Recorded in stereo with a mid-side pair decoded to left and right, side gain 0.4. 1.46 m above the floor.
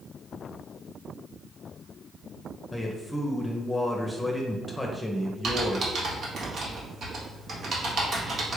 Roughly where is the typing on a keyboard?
Ahead right.